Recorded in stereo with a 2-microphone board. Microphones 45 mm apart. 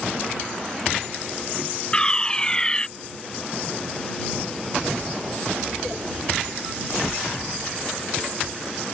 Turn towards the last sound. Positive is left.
turn(degrees=15)  # may be behind; listen again after turning